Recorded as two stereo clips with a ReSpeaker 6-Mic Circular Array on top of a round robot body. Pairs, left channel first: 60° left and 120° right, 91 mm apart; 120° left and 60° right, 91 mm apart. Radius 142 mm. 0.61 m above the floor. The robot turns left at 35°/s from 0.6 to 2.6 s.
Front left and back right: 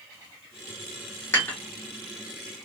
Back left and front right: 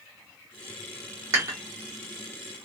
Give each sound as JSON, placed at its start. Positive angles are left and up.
{"t": 1.3, "sound": "dishes clattering", "azimuth_deg": -5, "distance_m": 1.9}